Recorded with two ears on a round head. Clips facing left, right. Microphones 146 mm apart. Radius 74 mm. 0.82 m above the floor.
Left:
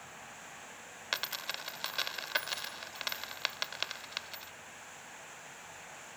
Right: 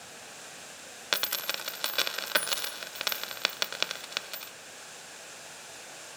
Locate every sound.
0.0 s running water: 45° right (ahead or behind)
1.1 s a dropped coin: 65° right (ahead or behind)